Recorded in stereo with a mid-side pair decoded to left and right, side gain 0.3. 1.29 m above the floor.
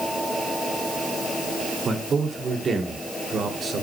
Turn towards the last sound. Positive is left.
turn(degrees=-70)